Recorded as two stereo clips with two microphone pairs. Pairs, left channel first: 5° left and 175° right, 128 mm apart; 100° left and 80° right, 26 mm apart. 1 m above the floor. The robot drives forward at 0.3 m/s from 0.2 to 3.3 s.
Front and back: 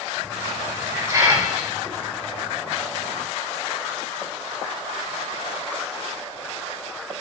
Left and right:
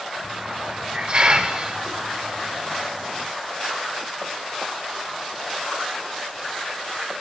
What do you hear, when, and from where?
0.2 s a hiss: 105° right, 2.5 m; by 2.6 s 120° right, 2.5 m